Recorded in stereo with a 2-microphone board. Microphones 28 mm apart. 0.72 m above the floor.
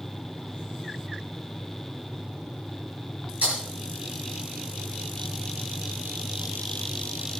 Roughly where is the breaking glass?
Right.